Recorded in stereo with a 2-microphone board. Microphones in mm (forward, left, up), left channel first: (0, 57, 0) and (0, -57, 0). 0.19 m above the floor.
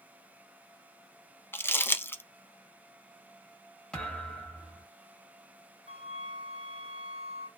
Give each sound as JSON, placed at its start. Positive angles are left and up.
{"t": 1.5, "sound": "crumpling", "side_deg": 20, "distance_m": 0.6}
{"t": 3.9, "sound": "a thud", "side_deg": 5, "distance_m": 1.5}
{"t": 5.9, "sound": "a flute", "side_deg": -65, "distance_m": 1.0}